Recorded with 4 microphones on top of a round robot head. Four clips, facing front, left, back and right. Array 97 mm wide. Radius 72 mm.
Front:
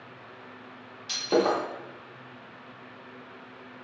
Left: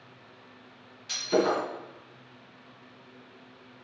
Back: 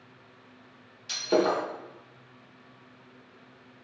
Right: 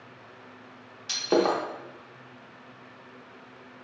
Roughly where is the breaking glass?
Right.